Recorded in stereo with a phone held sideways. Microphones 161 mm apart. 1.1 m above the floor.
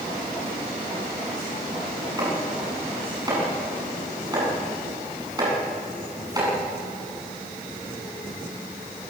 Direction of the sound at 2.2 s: 25° right (ahead or behind).